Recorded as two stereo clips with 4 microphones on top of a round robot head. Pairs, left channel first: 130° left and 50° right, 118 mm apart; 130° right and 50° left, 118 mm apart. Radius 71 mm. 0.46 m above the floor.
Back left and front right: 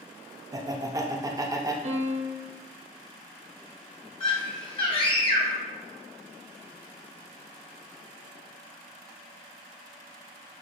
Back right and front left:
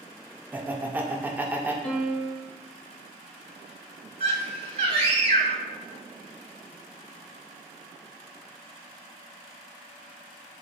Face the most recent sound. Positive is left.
turn(degrees=85)